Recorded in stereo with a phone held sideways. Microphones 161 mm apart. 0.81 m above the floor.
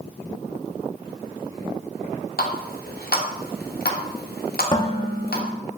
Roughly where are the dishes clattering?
Left.